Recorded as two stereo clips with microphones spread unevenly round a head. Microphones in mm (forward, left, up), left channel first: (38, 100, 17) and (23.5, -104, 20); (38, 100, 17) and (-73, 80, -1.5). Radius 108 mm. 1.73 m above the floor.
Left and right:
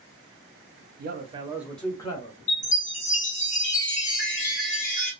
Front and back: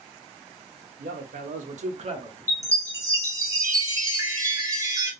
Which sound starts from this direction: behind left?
A chime, at 2.5 s.